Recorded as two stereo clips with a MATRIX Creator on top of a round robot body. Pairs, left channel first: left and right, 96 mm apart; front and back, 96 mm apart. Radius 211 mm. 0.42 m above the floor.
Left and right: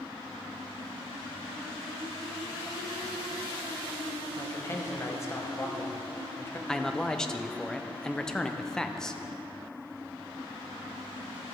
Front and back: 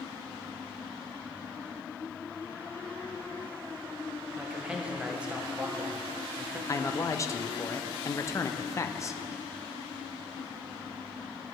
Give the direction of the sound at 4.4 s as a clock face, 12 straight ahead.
8 o'clock.